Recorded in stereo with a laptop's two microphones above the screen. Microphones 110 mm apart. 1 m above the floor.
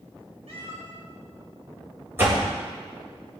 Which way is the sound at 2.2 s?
20° right (ahead or behind).